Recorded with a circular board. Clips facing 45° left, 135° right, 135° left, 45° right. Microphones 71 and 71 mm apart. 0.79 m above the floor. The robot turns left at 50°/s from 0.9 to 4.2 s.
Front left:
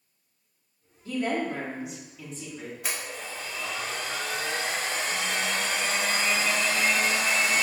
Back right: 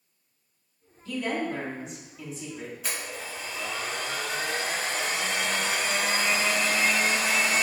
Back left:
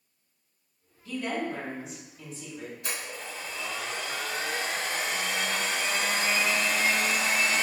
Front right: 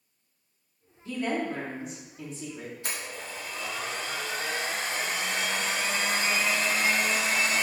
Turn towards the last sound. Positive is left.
turn(degrees=-105)